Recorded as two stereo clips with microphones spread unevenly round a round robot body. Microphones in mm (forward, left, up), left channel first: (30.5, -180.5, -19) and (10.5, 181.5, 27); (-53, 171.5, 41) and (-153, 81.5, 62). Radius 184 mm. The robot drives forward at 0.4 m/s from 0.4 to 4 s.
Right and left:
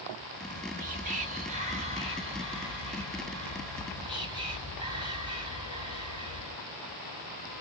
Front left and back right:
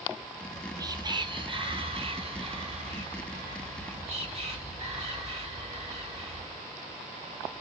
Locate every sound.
0.4 s whispering: 145° left, 0.6 m; by 6.7 s 175° left, 1.8 m